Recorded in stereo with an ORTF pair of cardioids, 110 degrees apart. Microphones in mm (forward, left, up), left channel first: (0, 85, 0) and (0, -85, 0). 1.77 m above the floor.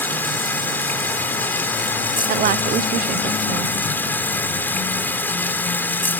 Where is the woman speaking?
55° right.